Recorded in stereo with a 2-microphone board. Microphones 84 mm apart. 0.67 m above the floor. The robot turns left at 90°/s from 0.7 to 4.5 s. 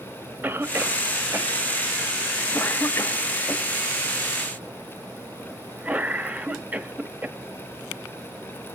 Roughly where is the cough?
Right.